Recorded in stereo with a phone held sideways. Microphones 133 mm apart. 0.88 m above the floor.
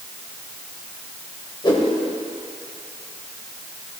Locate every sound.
1.6 s a whoosh: 40° left (ahead or behind), 2 m